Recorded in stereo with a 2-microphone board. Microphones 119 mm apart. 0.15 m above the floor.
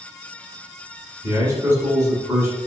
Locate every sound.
1.2 s a man speaking: 25° right (ahead or behind), 1.1 m